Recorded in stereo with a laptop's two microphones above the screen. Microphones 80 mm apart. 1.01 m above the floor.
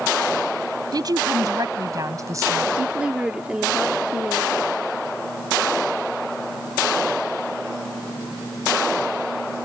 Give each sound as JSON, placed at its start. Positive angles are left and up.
{"t": 0.9, "sound": "a woman speaking", "side_deg": -55}
{"t": 2.8, "sound": "a woman speaking", "side_deg": -15}